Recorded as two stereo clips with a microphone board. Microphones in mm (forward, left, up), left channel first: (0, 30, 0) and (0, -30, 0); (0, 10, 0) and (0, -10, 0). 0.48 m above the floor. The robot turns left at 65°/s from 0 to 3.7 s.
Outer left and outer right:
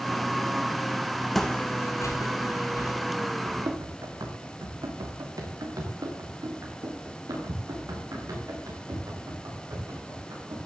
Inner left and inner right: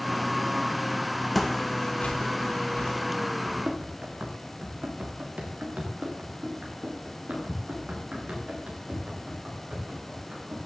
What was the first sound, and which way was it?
Footsteps, centre (ahead or behind).